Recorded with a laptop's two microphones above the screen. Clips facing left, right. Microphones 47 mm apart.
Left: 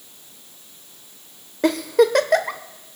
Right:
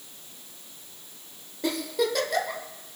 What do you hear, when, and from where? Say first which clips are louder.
1.6 s a giggle: left 10 dB; 60° left (ahead or behind), 0.9 m